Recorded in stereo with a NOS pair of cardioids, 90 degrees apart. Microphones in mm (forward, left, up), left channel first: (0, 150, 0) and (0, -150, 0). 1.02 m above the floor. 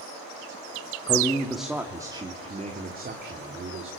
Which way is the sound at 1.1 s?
10° left.